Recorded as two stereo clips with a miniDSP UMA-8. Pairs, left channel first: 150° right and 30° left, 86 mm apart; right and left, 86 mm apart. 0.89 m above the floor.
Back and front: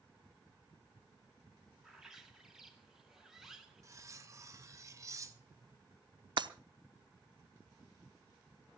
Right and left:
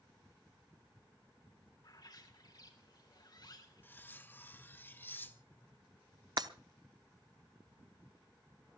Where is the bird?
55° right, 2 m.